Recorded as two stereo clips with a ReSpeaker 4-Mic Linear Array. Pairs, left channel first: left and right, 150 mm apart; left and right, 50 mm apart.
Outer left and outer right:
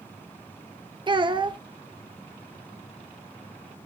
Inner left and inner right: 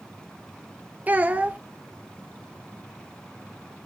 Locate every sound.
1.1 s a child speaking: 30° right (ahead or behind), 0.6 m